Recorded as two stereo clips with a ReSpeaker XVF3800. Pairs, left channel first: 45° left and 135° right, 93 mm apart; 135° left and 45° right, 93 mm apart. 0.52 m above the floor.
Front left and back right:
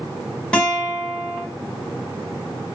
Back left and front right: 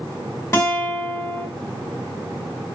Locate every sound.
0.5 s a guitar: 115° left, 1.2 m